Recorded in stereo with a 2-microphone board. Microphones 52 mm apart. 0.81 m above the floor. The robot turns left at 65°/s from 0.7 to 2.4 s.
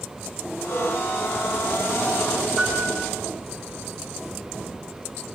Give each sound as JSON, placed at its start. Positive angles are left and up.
{"t": 0.7, "sound": "a cowbell", "side_deg": -25, "distance_m": 8.0}
{"t": 2.6, "sound": "a piano", "side_deg": 10, "distance_m": 10.0}